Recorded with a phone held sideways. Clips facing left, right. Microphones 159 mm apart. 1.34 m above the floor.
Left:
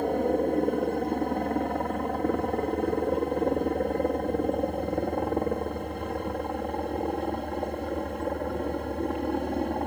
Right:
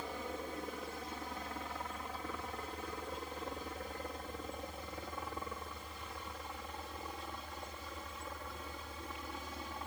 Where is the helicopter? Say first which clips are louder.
Left 18 dB; 60° left (ahead or behind).